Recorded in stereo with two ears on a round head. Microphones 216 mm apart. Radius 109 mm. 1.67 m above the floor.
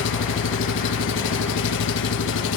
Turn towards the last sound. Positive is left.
turn(degrees=55)  # may be behind; listen again after turning